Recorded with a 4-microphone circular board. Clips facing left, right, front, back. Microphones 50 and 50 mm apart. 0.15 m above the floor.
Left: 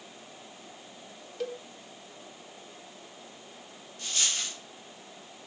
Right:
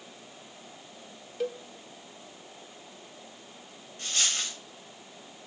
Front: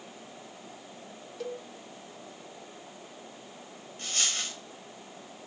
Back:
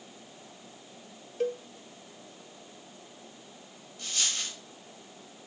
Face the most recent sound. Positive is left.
turn(degrees=-40)